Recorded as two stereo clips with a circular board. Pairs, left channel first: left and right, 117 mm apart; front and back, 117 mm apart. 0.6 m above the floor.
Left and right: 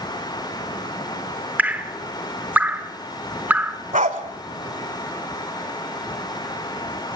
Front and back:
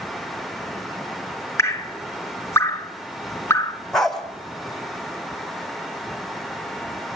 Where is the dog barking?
90° right, 1.5 m.